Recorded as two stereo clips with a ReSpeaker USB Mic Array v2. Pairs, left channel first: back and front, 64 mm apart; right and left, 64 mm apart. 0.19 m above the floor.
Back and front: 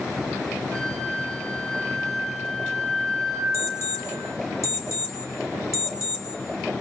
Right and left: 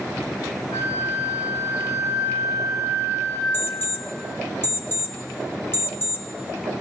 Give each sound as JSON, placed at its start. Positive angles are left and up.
{"t": 0.7, "sound": "a flute", "azimuth_deg": -95, "distance_m": 6.5}
{"t": 3.5, "sound": "an alarm clock", "azimuth_deg": -140, "distance_m": 1.7}